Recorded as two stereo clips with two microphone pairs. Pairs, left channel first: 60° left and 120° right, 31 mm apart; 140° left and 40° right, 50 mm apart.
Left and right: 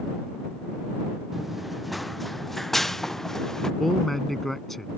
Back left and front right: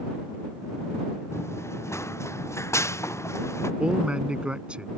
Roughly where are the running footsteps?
Behind left.